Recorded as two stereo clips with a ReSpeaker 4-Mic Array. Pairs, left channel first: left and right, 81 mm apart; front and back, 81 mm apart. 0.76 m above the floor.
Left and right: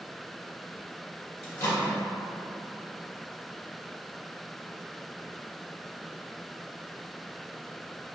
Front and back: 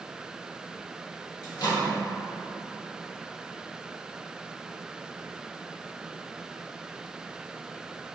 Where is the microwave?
35° left, 1.4 m.